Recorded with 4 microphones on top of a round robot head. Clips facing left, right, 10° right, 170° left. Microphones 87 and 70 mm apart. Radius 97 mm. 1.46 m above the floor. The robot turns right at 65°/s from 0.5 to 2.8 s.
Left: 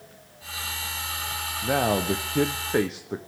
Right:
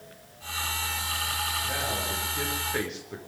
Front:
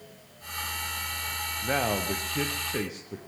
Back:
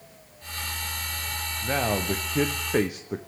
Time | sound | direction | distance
1.6 | a man speaking | 65° left | 1.0 m